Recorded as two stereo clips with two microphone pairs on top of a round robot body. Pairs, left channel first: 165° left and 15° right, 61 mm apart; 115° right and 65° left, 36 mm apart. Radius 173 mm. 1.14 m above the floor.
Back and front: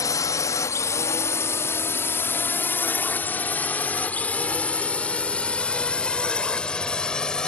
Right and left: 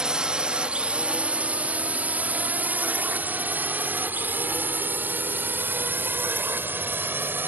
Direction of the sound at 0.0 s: 135° left.